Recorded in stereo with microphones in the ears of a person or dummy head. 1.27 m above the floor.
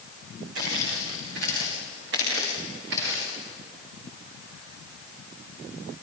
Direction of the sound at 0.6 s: 65° right (ahead or behind).